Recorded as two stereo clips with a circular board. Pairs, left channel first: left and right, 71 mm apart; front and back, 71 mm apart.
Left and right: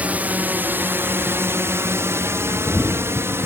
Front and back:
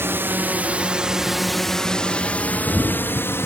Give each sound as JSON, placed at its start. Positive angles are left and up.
{"t": 0.0, "sound": "a drone", "azimuth_deg": -145}